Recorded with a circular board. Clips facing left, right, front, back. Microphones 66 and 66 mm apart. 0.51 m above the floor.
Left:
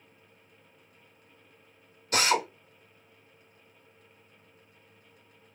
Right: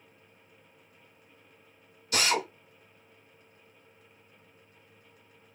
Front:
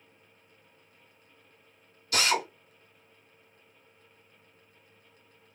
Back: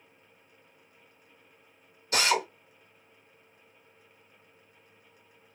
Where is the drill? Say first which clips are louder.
Left 2 dB, back 1 dB; 125° left, 1.7 m.